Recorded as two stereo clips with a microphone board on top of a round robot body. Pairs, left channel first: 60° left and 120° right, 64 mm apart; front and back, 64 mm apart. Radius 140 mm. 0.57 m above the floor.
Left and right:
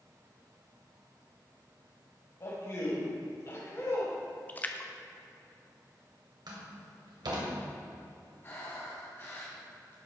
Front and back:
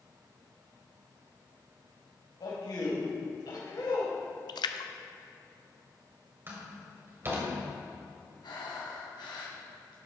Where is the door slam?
125° right, 2.5 m.